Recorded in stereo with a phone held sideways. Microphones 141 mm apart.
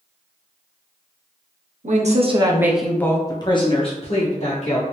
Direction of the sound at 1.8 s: 60° right (ahead or behind).